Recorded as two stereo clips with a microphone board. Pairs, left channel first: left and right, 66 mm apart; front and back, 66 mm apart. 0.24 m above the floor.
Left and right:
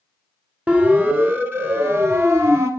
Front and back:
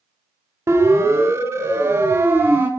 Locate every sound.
0.7 s a siren: 150° right, 2.5 m; by 2.7 s 125° right, 3 m